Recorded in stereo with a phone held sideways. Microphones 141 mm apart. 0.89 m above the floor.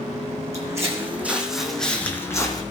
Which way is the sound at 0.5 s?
25° right (ahead or behind).